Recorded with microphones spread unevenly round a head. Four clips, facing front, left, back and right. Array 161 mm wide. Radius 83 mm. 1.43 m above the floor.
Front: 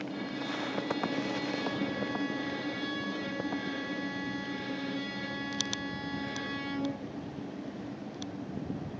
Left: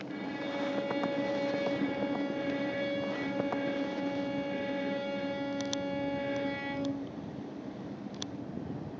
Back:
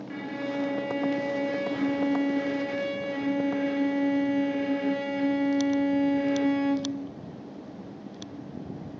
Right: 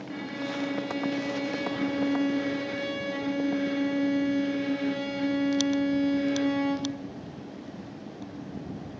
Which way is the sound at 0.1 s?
160° right.